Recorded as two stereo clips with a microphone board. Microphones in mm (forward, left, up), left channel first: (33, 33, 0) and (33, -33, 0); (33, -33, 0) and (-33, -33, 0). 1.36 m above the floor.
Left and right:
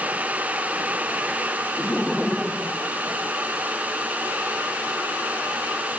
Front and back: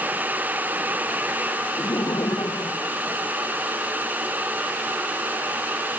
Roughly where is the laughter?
Ahead.